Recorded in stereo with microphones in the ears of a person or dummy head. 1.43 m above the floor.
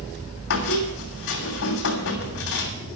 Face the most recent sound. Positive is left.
turn(degrees=70)  # may be behind; listen again after turning